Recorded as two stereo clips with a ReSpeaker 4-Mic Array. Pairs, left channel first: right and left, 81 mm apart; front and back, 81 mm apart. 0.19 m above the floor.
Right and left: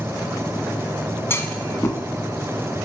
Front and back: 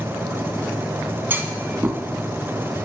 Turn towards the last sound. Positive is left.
turn(degrees=-130)